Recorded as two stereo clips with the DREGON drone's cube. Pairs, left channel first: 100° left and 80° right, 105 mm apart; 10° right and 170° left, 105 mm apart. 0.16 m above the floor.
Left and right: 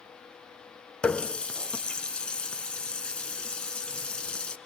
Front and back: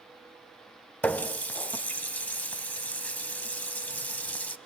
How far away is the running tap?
About 0.7 m.